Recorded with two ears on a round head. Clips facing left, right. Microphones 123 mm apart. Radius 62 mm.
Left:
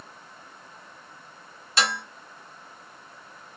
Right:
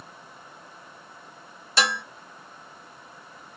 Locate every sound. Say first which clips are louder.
1.8 s dishes clattering: right 1 dB; 85° right, 1.4 m